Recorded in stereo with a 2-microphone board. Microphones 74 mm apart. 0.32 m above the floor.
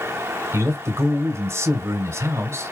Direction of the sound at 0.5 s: 40° right (ahead or behind).